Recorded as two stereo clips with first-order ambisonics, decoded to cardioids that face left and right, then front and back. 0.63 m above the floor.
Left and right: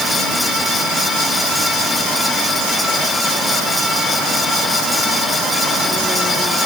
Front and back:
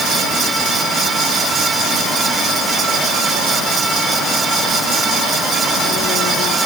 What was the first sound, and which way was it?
Only background noise.